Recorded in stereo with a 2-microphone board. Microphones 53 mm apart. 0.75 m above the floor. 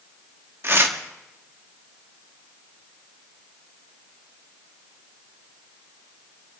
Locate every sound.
0.6 s tearing paper: 45° right (ahead or behind), 1.0 m